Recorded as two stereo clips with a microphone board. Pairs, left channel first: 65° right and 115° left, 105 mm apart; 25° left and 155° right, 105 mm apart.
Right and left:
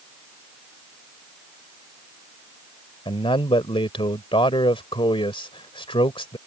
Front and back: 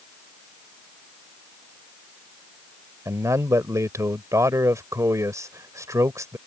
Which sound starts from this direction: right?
A man speaking, at 3.0 s.